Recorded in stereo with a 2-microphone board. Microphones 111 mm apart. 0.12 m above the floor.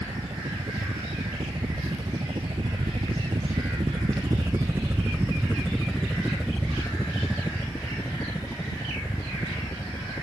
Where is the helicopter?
45° right (ahead or behind); by 10.2 s 30° left (ahead or behind).